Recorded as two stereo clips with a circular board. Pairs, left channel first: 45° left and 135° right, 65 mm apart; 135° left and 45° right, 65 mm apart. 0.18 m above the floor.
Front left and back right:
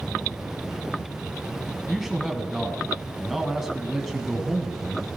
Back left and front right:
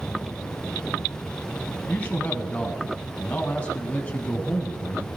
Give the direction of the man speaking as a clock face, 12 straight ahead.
7 o'clock.